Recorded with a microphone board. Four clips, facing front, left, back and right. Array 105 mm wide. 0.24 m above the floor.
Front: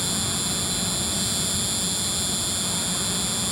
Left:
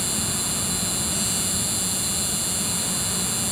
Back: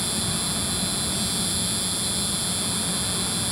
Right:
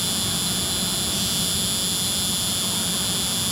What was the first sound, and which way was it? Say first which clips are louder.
An insect: right 1 dB, even; 90° right.